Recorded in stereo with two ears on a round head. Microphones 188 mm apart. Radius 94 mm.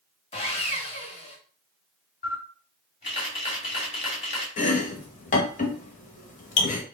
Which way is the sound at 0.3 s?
30° left (ahead or behind).